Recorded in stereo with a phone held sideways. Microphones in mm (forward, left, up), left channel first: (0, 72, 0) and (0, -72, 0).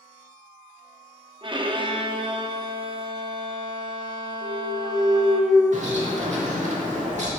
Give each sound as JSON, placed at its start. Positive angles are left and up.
{"t": 1.4, "sound": "a violin", "side_deg": -35, "distance_m": 0.6}
{"t": 4.4, "sound": "a clunk", "side_deg": -25, "distance_m": 1.1}
{"t": 5.7, "sound": "a bird", "side_deg": -55, "distance_m": 1.5}